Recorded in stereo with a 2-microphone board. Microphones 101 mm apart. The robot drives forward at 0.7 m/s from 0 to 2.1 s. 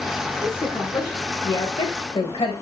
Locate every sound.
0.4 s a woman speaking: 30° left (ahead or behind), 1.6 m; by 2.5 s 70° left (ahead or behind), 0.9 m